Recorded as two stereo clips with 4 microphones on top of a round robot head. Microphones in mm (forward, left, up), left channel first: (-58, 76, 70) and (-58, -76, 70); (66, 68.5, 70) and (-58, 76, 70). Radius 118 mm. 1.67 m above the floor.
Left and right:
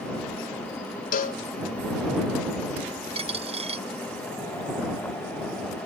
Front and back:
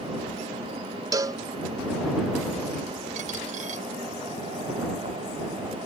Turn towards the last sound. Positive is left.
turn(degrees=-140)